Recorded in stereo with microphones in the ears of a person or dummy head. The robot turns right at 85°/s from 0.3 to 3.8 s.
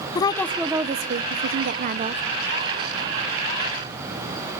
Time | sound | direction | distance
0.1 | a woman speaking | 160° left | 0.7 m